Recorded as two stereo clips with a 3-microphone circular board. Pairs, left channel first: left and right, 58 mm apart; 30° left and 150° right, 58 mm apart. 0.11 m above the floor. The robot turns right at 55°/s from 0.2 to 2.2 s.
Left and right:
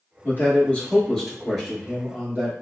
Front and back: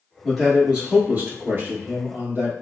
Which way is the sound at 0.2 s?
115° left.